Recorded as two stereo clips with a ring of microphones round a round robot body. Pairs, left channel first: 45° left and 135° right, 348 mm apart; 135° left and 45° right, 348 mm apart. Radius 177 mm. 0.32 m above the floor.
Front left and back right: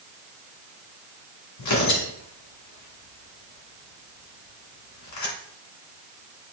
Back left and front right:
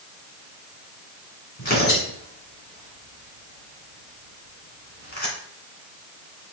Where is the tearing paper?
70° left, 2.5 m.